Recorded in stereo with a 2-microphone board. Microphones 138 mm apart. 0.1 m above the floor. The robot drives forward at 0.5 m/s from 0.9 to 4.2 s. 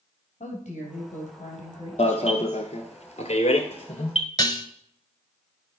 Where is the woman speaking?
60° left (ahead or behind), 3.5 m; by 2.7 s 55° left (ahead or behind), 4 m.